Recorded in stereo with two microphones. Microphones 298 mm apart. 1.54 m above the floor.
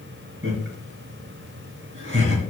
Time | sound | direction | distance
0.4 | laughter | 40° right (ahead or behind) | 3 m